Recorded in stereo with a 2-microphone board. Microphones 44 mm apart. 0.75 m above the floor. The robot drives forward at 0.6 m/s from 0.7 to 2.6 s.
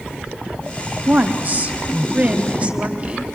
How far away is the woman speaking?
About 1.4 m.